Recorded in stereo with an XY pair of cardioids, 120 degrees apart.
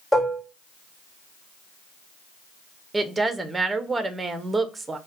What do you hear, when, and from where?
0.1 s dishes clattering: 5° left, 1.8 m
2.9 s a woman speaking: 20° right, 0.7 m